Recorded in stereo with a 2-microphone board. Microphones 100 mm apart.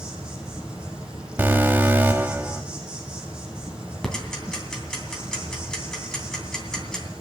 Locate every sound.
0.0 s an insect: 10° right (ahead or behind), 4.5 m
1.4 s an alarm: 20° right (ahead or behind), 1.2 m
4.0 s ticking: 5° left (ahead or behind), 2.5 m